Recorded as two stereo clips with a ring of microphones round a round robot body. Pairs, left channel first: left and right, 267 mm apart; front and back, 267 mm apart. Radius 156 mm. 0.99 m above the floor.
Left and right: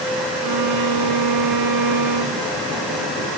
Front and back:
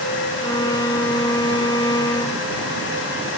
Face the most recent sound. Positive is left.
turn(degrees=-75)